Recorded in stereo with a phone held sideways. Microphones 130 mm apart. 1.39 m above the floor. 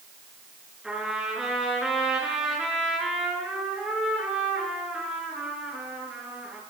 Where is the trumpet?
5° right (ahead or behind), 7.5 m.